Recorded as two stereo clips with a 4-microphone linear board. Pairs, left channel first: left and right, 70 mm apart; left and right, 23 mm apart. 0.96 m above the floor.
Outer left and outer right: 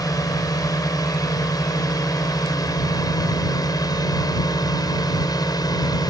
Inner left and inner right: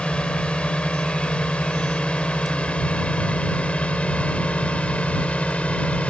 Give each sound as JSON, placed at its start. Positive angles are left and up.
{"t": 0.0, "sound": "a drone", "side_deg": 60}